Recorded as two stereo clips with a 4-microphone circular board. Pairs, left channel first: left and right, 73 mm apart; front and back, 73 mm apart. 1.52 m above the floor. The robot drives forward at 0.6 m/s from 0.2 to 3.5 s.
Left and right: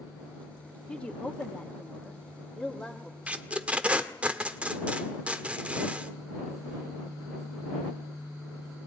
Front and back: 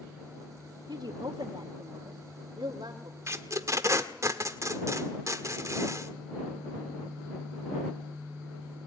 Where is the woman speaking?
165° left, 2 m; by 3.2 s 170° left, 3.5 m.